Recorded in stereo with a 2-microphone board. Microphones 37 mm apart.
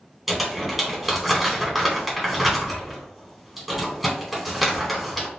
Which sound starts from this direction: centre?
Crumpling, at 0.3 s.